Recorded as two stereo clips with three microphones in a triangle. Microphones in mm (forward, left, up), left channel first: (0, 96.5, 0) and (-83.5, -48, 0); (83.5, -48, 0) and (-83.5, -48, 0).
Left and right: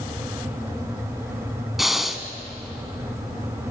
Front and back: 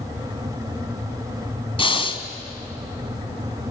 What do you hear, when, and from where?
1.8 s breathing: 30° right, 1.1 m